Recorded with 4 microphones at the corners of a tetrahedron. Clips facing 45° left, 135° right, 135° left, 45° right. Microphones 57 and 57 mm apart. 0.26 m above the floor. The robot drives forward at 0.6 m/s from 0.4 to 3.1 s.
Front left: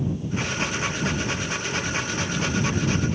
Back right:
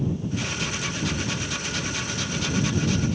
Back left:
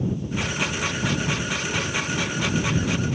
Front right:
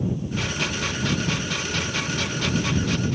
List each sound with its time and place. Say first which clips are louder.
0.4 s a cupboard door: front left 3 dB, back left 2 dB; 115° left; by 0.6 s 120° left